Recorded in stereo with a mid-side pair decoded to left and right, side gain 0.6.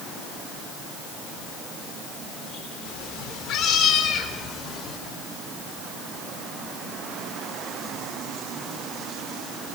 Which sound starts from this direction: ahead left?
A cat meowing, at 2.9 s.